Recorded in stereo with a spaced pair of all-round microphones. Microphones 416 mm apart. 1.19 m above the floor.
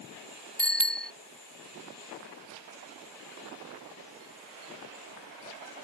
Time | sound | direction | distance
0.6 | a bicycle bell | 65° left (ahead or behind) | ?